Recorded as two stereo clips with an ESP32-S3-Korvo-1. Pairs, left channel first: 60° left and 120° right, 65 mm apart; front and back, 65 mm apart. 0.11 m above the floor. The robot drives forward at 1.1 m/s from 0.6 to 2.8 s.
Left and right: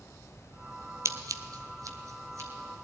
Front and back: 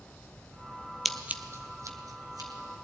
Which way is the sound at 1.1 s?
90° right.